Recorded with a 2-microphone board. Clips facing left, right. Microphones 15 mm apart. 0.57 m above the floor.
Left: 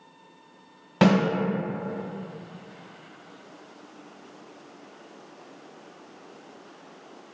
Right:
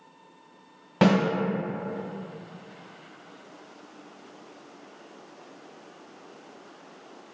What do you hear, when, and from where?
1.0 s a snare drum: 25° left (ahead or behind), 1.1 m